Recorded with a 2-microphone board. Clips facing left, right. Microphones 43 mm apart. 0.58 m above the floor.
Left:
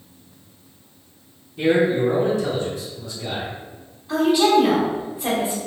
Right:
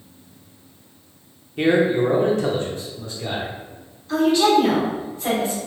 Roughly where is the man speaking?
Right.